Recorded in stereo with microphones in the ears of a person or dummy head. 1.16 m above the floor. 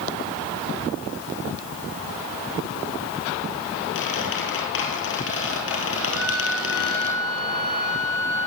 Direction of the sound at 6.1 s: 80° right.